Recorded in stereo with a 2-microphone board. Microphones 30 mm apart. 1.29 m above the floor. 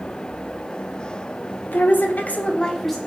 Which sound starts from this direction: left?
A woman speaking, at 1.7 s.